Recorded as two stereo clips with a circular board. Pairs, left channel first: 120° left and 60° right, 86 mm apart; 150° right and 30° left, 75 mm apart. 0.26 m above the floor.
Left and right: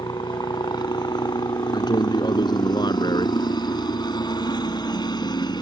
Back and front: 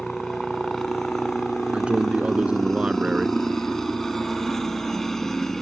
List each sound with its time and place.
0.0 s a helicopter: 125° left
1.7 s a man speaking: 105° left